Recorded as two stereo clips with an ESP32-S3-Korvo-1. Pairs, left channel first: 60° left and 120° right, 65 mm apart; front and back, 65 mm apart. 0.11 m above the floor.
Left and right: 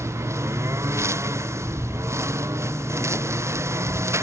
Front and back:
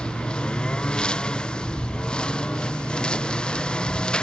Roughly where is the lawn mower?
Right.